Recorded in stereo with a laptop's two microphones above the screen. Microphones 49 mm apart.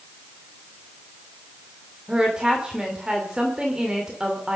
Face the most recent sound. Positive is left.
turn(degrees=-15)  # may be behind; listen again after turning